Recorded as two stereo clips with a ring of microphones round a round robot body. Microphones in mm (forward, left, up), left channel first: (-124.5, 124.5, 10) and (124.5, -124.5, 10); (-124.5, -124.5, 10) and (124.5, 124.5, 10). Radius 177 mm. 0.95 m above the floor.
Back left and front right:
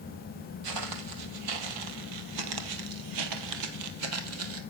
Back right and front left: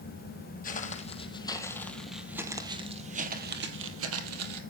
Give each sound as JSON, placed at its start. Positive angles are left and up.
{"t": 0.6, "sound": "footsteps", "azimuth_deg": -70, "distance_m": 2.5}